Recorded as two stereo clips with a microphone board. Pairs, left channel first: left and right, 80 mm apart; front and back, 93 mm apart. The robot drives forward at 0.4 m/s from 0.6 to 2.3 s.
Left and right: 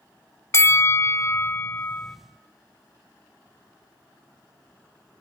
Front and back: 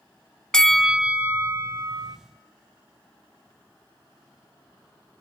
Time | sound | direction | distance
0.5 | a bell | 80° left | 0.5 m